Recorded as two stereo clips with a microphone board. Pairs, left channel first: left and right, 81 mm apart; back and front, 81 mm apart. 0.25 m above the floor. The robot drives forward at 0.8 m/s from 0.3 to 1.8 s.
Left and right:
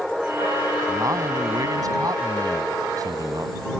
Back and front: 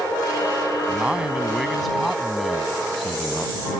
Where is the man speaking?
70° right; by 3.7 s 90° right.